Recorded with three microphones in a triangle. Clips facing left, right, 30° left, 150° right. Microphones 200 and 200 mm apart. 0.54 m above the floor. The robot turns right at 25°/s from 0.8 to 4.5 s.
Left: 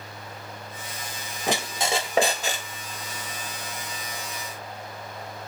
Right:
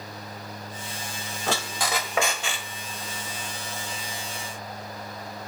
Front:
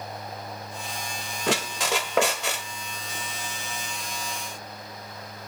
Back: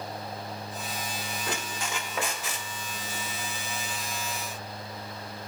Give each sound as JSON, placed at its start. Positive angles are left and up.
{"t": 1.5, "sound": "a squeak", "azimuth_deg": 20, "distance_m": 0.8}